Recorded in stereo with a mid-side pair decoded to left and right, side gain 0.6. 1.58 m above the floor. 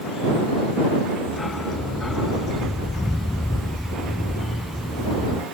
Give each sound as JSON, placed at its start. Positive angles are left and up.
{"t": 1.3, "sound": "a dog barking", "azimuth_deg": 20}